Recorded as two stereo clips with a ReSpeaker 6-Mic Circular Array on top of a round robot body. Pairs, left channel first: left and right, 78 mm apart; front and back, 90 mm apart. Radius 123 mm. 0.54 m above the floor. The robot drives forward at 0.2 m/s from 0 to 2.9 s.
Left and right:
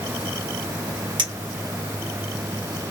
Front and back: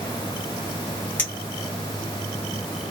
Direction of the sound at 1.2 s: 75° right.